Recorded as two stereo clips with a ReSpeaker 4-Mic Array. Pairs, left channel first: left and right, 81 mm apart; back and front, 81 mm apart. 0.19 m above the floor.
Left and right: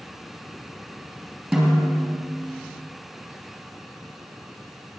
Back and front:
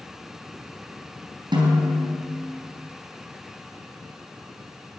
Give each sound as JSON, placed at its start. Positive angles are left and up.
{"t": 1.5, "sound": "a snare drum", "azimuth_deg": 0, "distance_m": 3.5}